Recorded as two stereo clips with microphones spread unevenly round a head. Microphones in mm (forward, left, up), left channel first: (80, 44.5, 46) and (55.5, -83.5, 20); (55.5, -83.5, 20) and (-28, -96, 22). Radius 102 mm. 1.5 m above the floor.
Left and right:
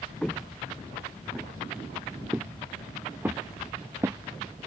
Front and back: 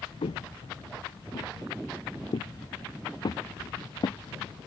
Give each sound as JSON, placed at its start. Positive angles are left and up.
{"t": 0.2, "sound": "footsteps", "azimuth_deg": -5}